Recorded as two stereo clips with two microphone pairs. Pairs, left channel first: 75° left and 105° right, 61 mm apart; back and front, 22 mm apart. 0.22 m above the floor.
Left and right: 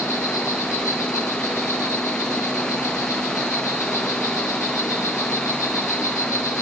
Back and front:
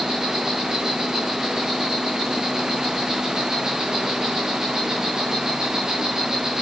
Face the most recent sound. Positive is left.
turn(degrees=55)